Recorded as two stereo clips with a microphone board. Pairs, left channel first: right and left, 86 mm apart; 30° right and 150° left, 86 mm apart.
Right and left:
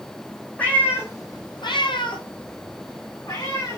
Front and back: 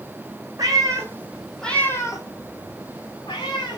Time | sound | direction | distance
0.6 | a cat meowing | 165° right | 1.6 m